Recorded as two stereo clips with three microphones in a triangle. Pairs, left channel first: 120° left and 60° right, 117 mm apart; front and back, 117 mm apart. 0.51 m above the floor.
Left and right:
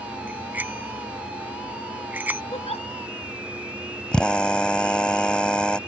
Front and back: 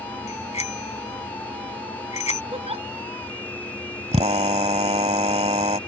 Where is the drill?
160° right.